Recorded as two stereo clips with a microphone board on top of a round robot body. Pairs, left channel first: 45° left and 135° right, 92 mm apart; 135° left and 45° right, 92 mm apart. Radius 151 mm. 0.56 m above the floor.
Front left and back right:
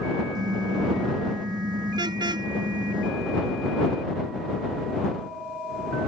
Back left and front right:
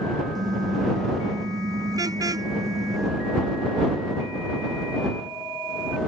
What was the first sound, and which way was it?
A car horn, 90° right.